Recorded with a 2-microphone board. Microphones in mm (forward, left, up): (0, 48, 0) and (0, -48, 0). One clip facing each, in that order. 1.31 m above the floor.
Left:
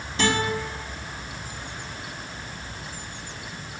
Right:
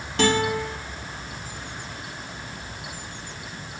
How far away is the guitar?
About 2.5 m.